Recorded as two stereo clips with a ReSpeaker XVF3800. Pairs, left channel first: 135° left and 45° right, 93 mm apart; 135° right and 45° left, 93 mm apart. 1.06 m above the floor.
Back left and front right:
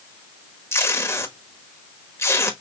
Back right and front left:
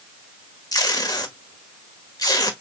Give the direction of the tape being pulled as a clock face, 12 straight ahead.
6 o'clock.